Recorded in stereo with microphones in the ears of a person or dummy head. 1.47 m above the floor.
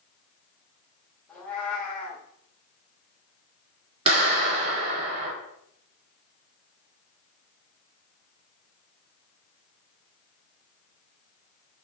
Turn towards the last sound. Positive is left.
turn(degrees=-30)  # may be behind; listen again after turning